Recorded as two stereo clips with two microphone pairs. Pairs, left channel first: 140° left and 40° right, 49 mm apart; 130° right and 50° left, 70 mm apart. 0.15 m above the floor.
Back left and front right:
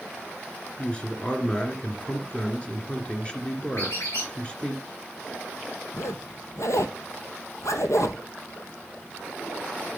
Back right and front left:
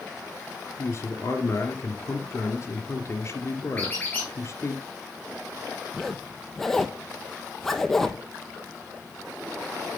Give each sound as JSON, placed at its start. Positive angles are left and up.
{"t": 0.8, "sound": "a man speaking", "azimuth_deg": -155, "distance_m": 2.5}
{"t": 3.8, "sound": "a squeak", "azimuth_deg": 165, "distance_m": 4.5}
{"t": 5.9, "sound": "a zipper", "azimuth_deg": 145, "distance_m": 0.9}